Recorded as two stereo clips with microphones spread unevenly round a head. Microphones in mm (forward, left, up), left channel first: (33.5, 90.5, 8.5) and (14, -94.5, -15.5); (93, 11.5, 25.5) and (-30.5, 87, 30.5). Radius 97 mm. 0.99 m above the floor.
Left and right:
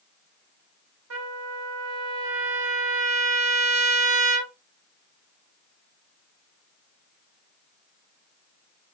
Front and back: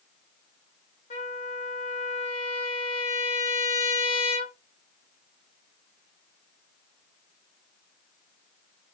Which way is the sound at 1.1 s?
85° right.